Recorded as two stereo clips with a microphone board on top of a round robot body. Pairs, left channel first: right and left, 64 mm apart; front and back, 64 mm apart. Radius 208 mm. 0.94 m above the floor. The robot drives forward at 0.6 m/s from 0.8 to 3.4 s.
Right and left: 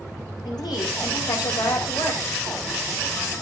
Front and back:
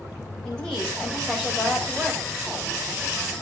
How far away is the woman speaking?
About 4.5 m.